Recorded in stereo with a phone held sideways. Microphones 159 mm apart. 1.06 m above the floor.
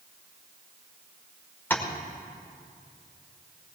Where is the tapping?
15° left (ahead or behind), 2 m.